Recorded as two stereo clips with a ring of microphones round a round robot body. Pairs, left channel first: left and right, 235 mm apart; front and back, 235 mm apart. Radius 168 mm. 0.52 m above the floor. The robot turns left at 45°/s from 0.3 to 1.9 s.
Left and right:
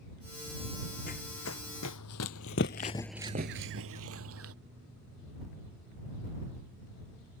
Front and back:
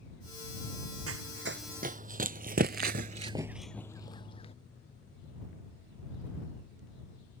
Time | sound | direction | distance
1.1 | running footsteps | 160° left | ?